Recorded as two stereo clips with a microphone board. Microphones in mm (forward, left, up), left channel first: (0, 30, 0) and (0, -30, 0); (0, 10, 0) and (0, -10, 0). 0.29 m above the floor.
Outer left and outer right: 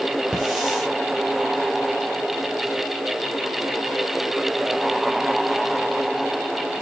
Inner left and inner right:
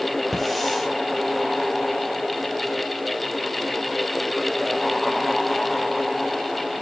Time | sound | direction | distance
0.3 | a hiss | 5° right (ahead or behind) | 4.5 m